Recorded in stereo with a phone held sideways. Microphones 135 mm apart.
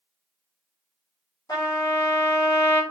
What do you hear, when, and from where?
1.5 s a trumpet: 30° left (ahead or behind), 2.0 m